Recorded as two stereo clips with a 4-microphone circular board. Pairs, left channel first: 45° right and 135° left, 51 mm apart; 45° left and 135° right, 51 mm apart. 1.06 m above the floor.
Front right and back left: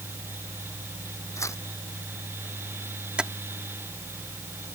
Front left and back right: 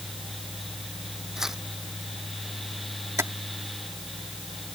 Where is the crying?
I don't hear crying.